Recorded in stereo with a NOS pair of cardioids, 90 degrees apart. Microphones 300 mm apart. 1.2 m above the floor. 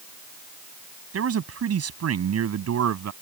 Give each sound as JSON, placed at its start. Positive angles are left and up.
{"t": 1.1, "sound": "a man speaking", "azimuth_deg": -50}